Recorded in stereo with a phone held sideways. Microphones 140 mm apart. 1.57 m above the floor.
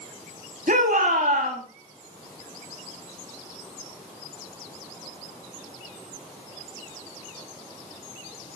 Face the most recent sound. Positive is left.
turn(degrees=-80)